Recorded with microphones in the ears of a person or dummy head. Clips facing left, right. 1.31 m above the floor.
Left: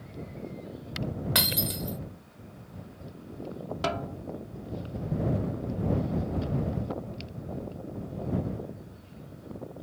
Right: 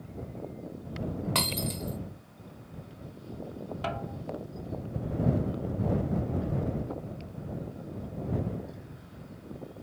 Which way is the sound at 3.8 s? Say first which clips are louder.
Left 5 dB; 50° left (ahead or behind).